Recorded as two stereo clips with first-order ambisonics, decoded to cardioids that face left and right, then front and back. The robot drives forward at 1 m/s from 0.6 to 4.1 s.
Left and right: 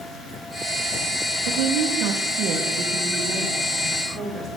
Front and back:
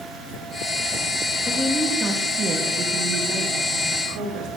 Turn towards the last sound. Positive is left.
turn(degrees=-155)